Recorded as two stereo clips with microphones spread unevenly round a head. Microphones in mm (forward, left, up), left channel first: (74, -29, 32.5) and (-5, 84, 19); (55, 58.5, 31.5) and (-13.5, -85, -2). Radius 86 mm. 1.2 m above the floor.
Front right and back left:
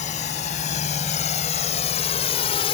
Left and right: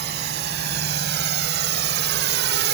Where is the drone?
105° right; by 2.8 s 110° right.